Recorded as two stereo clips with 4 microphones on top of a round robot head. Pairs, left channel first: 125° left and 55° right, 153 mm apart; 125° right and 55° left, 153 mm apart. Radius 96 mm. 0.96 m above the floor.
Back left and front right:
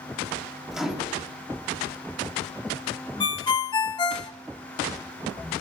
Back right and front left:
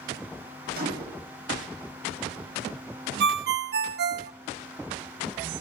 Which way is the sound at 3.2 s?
60° left.